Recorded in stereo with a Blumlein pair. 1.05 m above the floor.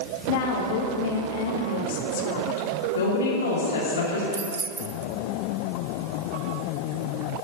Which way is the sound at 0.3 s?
50° left.